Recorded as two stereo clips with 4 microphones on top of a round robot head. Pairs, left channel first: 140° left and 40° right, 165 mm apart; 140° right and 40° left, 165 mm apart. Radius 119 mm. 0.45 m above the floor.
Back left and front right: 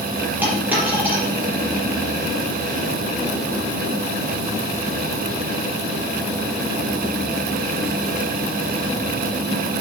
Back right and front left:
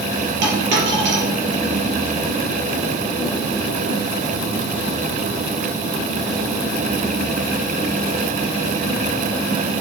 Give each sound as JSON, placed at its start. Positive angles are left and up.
{"t": 0.4, "sound": "a dropped coin", "azimuth_deg": 40, "distance_m": 5.5}